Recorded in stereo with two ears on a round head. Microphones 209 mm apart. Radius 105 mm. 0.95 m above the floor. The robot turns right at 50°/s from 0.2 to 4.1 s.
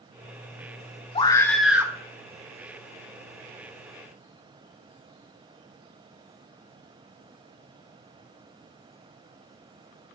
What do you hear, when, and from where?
1.1 s a scream: 155° left, 0.8 m; by 1.9 s 165° right, 0.8 m